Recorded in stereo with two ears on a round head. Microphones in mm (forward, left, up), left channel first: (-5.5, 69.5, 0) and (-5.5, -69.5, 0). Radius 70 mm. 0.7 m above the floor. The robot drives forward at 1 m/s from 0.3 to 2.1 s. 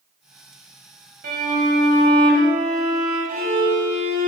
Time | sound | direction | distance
1.2 | a violin | 65° right (ahead or behind) | 3 m